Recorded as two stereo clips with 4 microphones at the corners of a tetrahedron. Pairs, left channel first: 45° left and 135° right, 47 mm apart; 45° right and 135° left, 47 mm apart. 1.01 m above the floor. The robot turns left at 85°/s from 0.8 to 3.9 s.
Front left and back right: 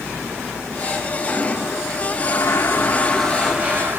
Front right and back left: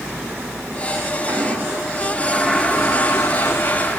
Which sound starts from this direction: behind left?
A toilet flushing, at 1.3 s.